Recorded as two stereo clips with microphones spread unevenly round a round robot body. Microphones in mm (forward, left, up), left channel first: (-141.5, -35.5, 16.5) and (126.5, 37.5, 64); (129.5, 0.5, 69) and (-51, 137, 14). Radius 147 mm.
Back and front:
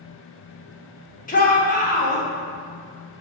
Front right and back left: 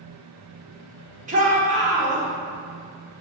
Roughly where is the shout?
Behind.